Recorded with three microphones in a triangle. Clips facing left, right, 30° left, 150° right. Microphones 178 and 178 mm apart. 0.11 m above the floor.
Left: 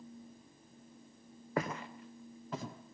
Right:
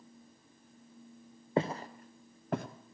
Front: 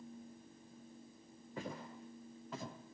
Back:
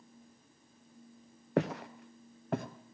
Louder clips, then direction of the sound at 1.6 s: Right 5 dB, back 14 dB; 155° right.